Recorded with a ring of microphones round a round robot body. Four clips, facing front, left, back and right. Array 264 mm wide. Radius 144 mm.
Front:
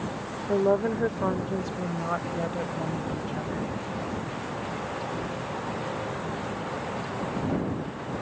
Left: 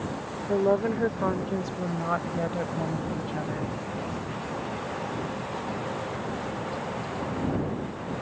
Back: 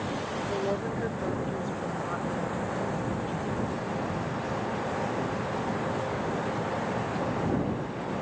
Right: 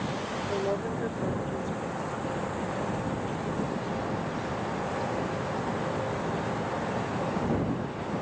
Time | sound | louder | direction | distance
0.5 | a woman speaking | left 8 dB, front 9 dB | 40° left | ?